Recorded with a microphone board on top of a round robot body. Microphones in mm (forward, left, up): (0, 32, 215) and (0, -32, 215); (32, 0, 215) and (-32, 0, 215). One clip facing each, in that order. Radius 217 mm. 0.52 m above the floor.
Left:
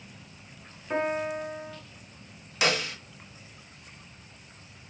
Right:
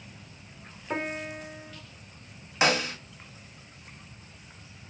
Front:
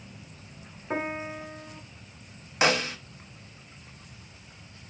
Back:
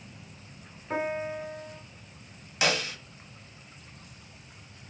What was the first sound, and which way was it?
A piano, 25° right.